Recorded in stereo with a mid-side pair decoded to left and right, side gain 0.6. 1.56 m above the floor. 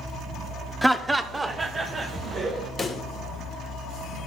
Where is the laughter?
5° right, 0.7 m; by 2.7 s 30° right, 1.8 m.